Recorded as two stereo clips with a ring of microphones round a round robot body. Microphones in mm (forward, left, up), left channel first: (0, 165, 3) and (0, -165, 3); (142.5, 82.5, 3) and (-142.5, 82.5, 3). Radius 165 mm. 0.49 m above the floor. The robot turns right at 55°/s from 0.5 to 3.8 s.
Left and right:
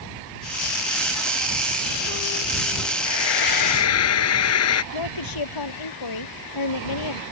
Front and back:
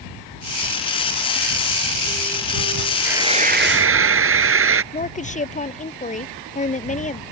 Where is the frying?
95° left; by 4.8 s 135° left.